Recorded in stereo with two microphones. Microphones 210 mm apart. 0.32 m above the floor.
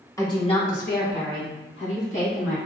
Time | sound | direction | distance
0.2 | a woman speaking | 15° left (ahead or behind) | 1.5 m